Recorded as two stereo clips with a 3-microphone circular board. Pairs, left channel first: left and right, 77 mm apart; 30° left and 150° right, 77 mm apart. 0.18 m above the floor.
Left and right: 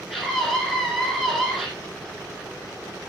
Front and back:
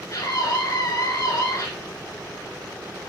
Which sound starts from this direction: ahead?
A scream, at 0.1 s.